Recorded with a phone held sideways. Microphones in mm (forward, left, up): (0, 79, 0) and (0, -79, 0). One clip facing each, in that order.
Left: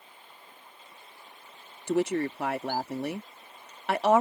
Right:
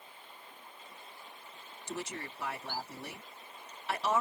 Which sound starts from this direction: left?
A woman speaking, at 1.9 s.